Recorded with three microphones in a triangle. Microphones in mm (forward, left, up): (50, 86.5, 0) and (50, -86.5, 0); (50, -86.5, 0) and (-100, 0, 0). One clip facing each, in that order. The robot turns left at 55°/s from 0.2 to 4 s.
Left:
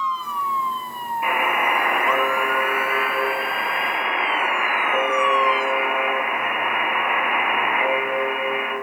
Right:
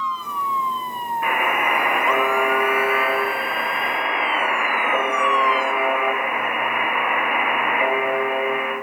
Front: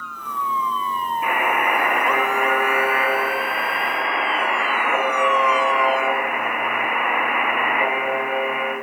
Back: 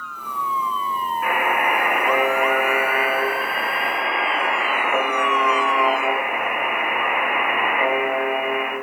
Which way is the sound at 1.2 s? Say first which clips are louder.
Even, even; 35° left.